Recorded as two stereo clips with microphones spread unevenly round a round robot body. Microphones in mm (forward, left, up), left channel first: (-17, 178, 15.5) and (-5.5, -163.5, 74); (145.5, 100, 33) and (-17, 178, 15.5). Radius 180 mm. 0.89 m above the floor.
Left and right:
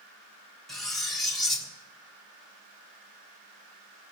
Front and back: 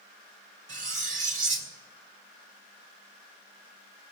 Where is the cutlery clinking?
Straight behind, 1.3 m.